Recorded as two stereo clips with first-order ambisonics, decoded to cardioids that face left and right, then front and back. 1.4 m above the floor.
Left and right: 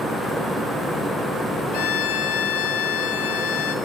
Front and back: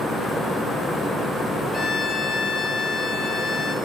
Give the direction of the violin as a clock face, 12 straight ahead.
10 o'clock.